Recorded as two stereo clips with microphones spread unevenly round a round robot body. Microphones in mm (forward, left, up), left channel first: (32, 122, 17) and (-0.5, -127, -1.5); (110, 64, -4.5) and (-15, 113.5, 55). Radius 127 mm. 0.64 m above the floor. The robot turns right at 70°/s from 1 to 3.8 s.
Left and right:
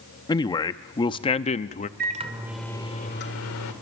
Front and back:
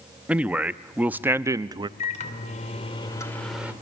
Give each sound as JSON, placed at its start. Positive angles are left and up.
{"t": 0.3, "sound": "a man speaking", "azimuth_deg": 25, "distance_m": 0.6}
{"t": 2.0, "sound": "a microwave", "azimuth_deg": -50, "distance_m": 2.0}